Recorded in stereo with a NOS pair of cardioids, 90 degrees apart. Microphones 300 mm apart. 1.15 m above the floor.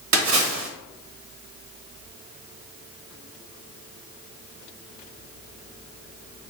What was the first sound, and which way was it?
A splash, 65° right.